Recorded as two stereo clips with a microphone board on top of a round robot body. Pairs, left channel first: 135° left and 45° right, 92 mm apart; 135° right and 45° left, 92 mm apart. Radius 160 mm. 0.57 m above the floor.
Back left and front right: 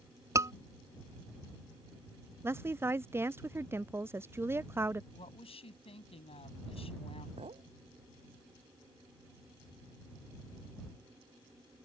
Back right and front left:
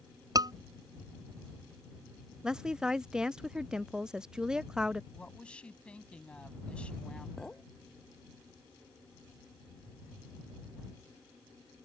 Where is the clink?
50° right.